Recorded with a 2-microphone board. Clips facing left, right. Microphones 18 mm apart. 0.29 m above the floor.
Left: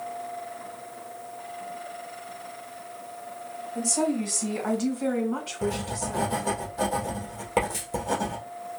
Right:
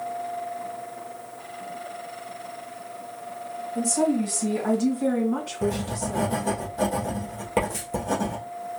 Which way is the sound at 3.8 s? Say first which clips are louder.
Right 3 dB; 20° left (ahead or behind).